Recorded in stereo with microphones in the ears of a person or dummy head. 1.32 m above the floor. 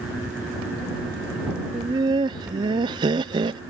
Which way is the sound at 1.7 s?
25° right (ahead or behind).